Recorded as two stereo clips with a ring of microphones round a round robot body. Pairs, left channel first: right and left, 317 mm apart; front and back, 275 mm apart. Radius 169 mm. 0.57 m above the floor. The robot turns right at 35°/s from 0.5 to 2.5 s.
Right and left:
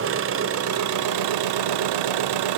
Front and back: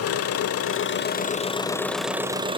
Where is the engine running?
35° left, 1.0 m; by 2.6 s 105° left, 1.0 m.